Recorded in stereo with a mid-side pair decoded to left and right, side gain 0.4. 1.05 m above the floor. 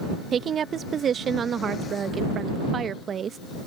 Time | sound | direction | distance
0.3 | a woman speaking | 55° right | ?